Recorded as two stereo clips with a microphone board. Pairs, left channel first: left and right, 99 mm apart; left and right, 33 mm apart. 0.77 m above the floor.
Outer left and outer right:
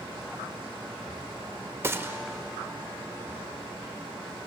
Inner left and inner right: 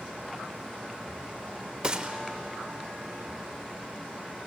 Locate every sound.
1.8 s a gunshot: 25° right (ahead or behind), 1.1 m